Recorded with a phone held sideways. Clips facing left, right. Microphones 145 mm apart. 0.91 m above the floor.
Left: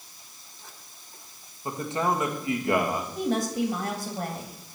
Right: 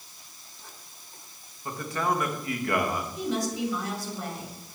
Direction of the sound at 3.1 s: 60° left (ahead or behind).